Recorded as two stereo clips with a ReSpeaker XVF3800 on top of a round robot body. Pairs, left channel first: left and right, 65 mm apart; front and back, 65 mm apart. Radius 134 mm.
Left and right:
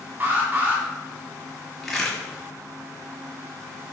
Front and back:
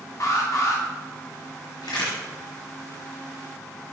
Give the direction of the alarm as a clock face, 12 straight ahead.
1 o'clock.